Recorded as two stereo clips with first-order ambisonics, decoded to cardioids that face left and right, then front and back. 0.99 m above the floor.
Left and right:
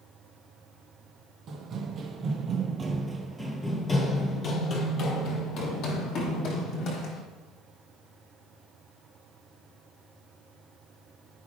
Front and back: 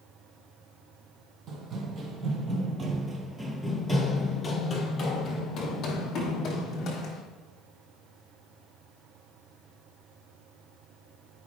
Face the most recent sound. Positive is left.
turn(degrees=55)